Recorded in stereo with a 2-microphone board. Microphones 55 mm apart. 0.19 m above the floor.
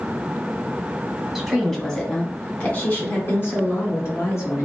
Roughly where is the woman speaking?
Centre.